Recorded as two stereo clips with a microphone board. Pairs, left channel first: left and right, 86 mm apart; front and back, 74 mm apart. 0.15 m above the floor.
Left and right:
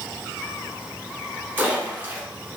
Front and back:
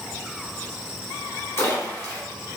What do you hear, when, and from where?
1.6 s a splash: 35° right, 1.5 m